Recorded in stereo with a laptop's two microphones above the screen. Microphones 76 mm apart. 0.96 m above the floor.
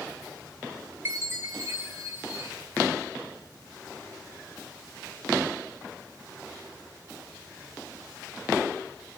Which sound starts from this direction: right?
A chime, at 1.1 s.